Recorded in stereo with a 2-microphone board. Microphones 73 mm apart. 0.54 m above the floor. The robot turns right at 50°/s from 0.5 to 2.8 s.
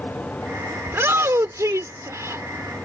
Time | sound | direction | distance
0.9 | a shout | 135° right | ?